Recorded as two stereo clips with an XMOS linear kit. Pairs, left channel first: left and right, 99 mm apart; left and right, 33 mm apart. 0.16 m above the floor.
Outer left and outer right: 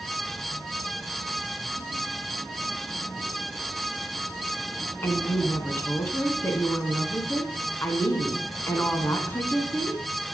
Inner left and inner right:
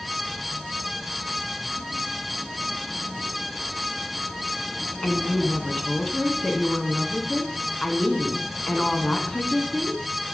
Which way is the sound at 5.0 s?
25° left (ahead or behind).